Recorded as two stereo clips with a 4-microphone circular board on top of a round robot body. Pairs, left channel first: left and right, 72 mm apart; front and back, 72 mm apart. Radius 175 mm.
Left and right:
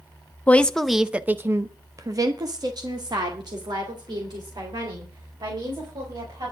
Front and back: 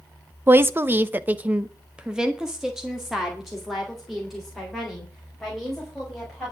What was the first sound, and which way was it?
A woman speaking, 145° left.